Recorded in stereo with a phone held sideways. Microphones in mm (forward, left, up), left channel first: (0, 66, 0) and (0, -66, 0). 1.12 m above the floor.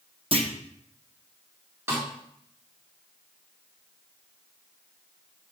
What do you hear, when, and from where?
0.3 s a clunk: 45° right (ahead or behind), 0.9 m
1.9 s a snare drum: 20° right (ahead or behind), 2.5 m